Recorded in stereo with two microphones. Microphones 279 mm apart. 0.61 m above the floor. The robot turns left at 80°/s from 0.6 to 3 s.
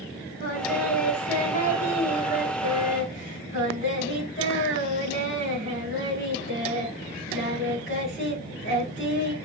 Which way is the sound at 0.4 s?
35° right.